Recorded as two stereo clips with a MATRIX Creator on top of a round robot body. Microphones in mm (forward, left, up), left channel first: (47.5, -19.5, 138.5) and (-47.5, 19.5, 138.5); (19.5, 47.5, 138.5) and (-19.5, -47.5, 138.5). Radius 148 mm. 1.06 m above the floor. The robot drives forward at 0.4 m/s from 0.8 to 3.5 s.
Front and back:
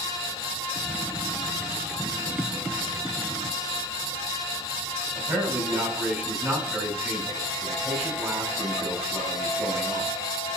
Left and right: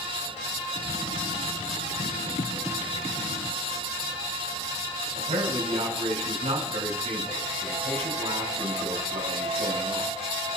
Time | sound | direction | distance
5.2 | a man speaking | 125° right | 5 m